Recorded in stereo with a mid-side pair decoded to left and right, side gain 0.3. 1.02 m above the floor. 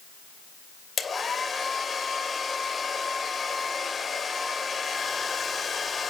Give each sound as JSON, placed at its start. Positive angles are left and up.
{"t": 1.0, "sound": "a hair dryer", "azimuth_deg": 50, "distance_m": 2.5}